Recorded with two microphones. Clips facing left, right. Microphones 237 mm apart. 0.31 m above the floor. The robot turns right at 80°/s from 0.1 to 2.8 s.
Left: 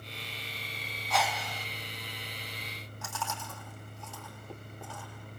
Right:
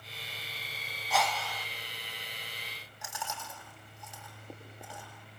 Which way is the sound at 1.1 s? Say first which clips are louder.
Even; 5° right.